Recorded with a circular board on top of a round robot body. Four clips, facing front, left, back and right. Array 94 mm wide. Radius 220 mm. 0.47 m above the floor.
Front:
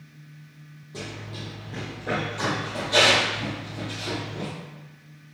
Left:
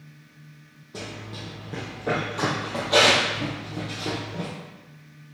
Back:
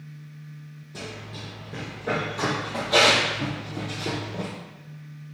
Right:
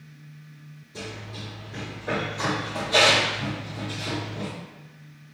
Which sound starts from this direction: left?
Running footsteps, at 0.9 s.